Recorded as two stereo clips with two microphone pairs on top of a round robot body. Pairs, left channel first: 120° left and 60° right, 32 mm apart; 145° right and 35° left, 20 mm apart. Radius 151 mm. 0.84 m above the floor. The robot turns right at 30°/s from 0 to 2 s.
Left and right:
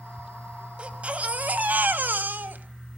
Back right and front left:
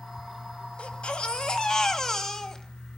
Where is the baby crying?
115° right, 2.5 m; by 3.0 s 75° right, 2.5 m.